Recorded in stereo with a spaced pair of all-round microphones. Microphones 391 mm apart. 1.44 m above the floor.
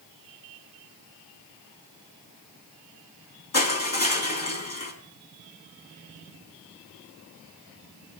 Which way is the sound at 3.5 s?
40° left (ahead or behind).